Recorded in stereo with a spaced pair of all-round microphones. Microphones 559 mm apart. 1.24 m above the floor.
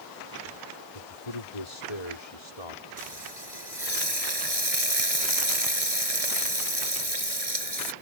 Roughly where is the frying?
Right.